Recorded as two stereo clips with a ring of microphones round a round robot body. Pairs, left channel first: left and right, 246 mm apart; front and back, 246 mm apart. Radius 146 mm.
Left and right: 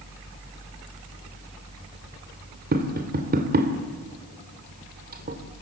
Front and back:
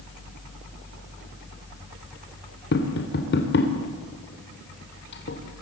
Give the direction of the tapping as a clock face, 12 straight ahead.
1 o'clock.